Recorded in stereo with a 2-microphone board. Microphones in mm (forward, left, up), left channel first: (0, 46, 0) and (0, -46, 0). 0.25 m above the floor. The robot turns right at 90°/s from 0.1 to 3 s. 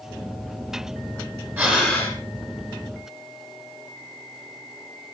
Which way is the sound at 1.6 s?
25° right.